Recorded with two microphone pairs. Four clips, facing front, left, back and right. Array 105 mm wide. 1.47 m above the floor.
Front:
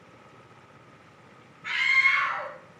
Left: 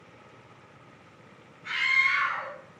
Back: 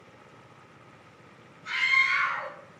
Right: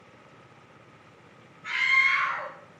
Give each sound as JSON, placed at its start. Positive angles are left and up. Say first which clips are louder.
{"t": 1.6, "sound": "a scream", "louder": "right 2 dB, front 1 dB", "azimuth_deg": -15, "distance_m": 2.0}